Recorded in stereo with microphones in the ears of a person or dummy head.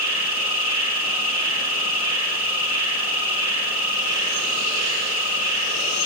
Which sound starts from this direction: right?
An insect, at 0.0 s.